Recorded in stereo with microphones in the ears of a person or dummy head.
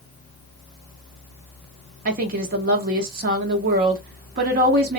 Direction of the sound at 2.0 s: 45° right (ahead or behind).